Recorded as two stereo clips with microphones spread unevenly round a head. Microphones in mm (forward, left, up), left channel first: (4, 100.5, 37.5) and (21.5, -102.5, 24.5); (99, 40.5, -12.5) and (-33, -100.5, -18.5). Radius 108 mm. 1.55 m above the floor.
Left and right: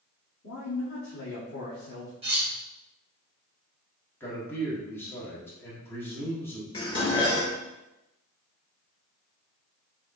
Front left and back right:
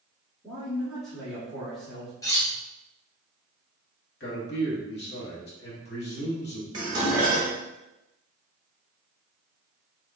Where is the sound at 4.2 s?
15° left, 1.4 m.